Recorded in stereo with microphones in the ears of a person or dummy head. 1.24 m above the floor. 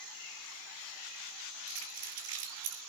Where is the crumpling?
80° right, 8.5 m.